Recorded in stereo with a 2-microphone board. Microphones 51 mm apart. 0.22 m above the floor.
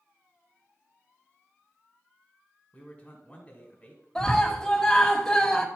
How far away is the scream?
About 1.4 m.